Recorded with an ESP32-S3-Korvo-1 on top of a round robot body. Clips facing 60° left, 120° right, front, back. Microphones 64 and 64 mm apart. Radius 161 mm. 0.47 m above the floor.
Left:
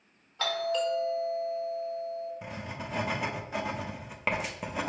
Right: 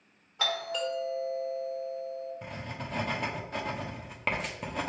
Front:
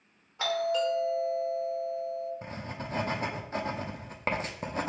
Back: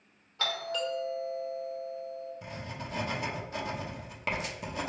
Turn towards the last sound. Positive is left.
turn(degrees=-20)